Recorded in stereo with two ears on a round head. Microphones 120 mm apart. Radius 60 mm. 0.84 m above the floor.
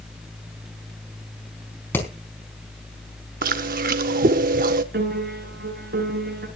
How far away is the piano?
About 8.5 m.